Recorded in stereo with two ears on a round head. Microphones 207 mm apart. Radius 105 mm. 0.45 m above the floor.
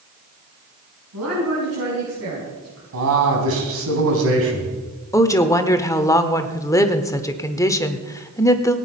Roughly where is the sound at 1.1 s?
Right.